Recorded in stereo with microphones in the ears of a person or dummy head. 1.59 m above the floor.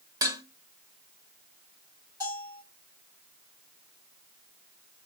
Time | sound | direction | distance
0.2 | dishes clattering | 20° right (ahead or behind) | 1.0 m
2.2 | a bell | 15° right (ahead or behind) | 4 m